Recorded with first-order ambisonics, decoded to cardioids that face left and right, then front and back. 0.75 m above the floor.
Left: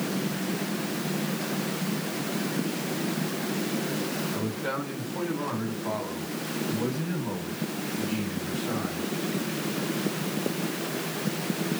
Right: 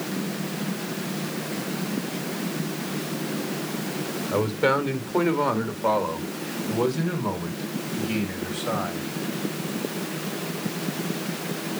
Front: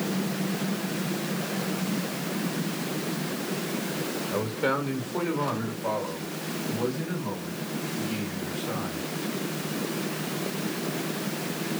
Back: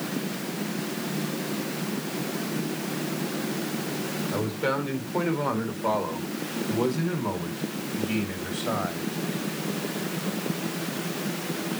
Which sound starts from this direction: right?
A man speaking, at 4.3 s.